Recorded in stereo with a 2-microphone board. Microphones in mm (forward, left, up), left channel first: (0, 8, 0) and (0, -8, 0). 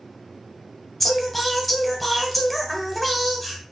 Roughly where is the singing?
Centre.